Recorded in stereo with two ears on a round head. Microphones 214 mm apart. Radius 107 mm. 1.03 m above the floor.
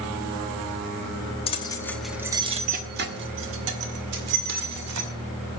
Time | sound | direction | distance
1.5 | keys jangling | 25° left (ahead or behind) | 1.1 m